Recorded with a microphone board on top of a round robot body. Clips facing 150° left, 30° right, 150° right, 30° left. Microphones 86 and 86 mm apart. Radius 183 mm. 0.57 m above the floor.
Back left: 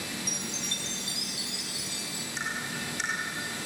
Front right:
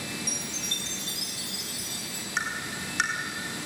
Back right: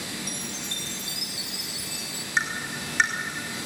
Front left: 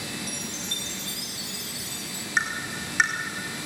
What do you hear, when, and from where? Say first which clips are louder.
0.3 s a chime: even, even; 75° right, 1.9 m
2.4 s tapping: front right 3 dB, even; 50° right, 4 m